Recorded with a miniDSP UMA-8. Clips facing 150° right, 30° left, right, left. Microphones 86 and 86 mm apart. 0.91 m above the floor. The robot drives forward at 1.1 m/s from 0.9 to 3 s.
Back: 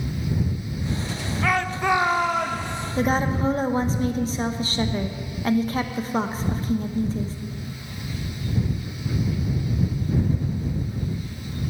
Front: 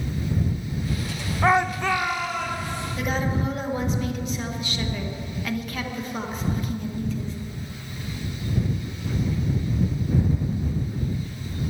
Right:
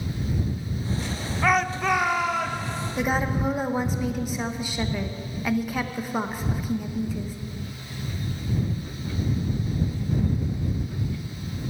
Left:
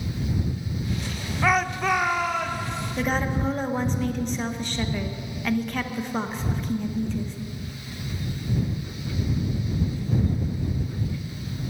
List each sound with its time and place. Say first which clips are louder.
1.4 s a shout: front 3 dB, even; straight ahead, 0.6 m; by 2.9 s straight behind, 1.3 m
3.0 s a woman speaking: back 5 dB, right 1 dB; 165° right, 0.9 m